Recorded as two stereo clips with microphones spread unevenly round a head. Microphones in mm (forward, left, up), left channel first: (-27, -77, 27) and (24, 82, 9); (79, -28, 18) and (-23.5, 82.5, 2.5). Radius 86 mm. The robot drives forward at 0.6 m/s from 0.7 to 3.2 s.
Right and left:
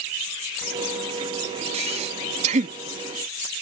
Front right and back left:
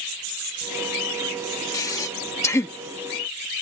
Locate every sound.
1.7 s breathing: 15° left; by 2.8 s 25° left